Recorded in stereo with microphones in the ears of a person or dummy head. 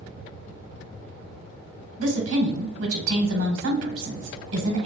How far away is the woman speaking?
About 1.0 m.